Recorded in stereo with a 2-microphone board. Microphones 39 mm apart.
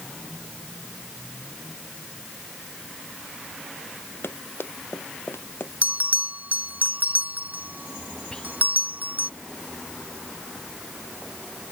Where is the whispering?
25° left (ahead or behind).